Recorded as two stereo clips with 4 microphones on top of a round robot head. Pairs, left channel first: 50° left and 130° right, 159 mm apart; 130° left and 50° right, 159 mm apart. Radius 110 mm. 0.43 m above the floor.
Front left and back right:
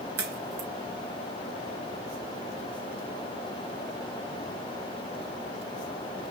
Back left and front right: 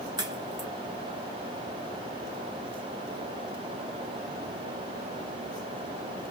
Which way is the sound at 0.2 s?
115° right.